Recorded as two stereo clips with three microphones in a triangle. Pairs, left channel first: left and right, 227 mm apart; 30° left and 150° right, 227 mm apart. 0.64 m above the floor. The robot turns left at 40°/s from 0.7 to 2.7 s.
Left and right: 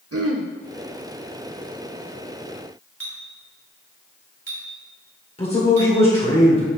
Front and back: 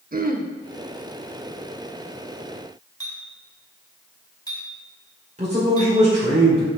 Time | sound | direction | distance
0.1 | throat clearing | 95° right | 0.8 m
3.0 | a clink | 105° left | 2.5 m
5.4 | a man speaking | 155° left | 2 m